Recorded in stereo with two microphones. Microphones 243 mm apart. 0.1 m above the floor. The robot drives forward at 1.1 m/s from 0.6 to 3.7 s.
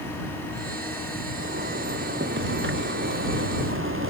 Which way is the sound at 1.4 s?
45° right (ahead or behind).